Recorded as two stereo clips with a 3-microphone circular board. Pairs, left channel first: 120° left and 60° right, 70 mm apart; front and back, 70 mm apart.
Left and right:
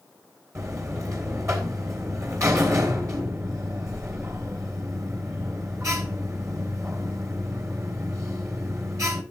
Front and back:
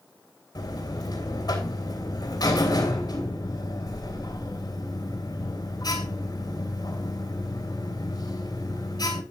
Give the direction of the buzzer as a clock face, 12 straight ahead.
1 o'clock.